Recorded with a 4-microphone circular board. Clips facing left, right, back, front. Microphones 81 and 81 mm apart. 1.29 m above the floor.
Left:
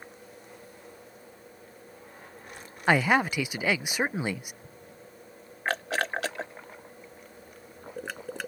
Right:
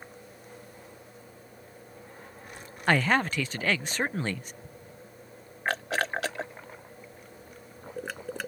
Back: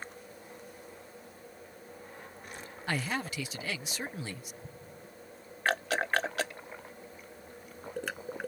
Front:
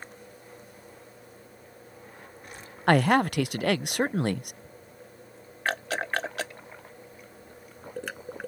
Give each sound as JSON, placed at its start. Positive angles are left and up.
{"t": 2.9, "sound": "a man speaking", "azimuth_deg": 10}
{"t": 4.6, "sound": "an explosion", "azimuth_deg": 180}